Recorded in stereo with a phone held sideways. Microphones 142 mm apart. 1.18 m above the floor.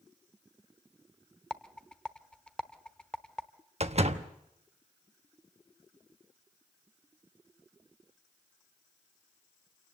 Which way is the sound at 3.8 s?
50° right (ahead or behind).